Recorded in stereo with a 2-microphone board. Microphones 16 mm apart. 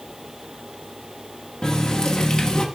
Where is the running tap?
45° left (ahead or behind), 1.2 m.